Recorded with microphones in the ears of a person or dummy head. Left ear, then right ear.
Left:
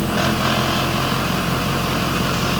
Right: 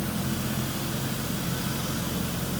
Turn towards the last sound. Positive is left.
No sound to turn to.